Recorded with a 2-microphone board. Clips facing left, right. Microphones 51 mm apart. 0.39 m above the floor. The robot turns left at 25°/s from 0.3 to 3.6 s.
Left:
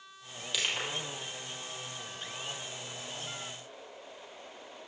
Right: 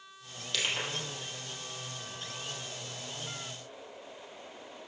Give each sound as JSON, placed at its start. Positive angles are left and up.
{"t": 0.5, "sound": "crushing", "side_deg": 5, "distance_m": 2.5}